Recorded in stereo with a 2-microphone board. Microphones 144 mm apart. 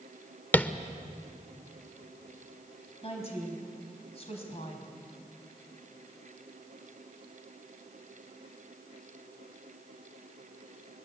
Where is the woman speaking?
45° left (ahead or behind), 4.5 m.